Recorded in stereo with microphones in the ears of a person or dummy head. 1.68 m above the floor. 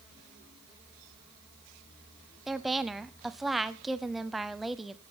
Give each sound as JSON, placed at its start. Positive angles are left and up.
{"t": 2.5, "sound": "a woman speaking", "side_deg": 0, "distance_m": 0.8}